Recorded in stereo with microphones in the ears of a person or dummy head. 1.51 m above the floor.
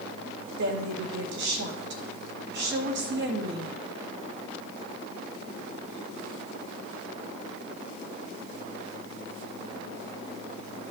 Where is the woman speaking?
60° right (ahead or behind), 1.7 m.